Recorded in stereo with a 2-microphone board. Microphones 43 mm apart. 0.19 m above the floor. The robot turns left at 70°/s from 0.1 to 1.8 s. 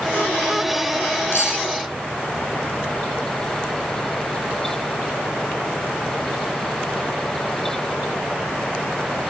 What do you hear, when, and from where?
1.3 s cutlery clinking: 65° left (ahead or behind), 2.5 m; by 1.6 s 75° left (ahead or behind), 2.5 m